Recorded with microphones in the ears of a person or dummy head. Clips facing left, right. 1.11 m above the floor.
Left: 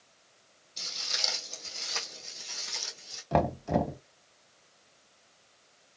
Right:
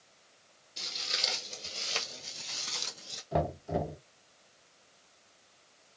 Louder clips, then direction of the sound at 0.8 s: Right 1 dB; 15° right (ahead or behind).